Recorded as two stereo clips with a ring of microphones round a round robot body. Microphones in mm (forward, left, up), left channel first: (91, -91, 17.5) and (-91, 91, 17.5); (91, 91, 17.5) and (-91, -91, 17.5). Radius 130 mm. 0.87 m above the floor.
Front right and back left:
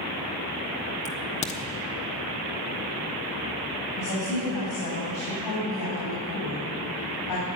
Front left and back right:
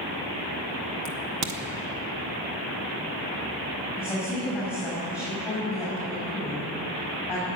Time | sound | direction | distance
1.1 | a crack | 110° right | 1.4 m
4.0 | a woman speaking | 50° right | 7 m